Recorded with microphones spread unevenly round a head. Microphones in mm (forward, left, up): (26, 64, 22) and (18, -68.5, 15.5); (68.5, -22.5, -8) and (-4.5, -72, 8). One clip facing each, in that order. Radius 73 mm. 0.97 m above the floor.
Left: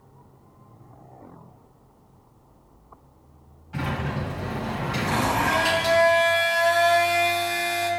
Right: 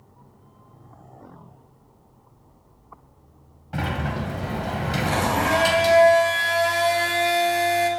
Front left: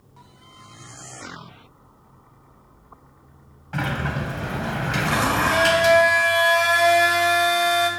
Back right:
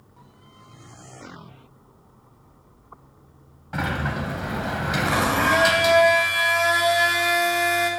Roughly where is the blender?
Ahead right.